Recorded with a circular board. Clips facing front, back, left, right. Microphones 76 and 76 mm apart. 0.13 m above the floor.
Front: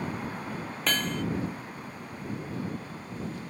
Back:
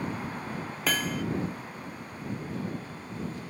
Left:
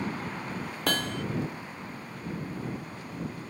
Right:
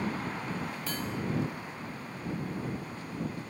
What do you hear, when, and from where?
0.9 s hammering: 95° left